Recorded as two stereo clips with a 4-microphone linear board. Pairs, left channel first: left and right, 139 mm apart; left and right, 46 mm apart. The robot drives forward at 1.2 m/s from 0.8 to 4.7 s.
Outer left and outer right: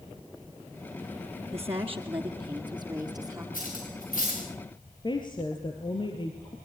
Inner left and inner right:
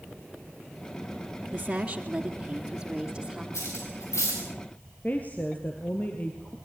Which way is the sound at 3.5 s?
80° left.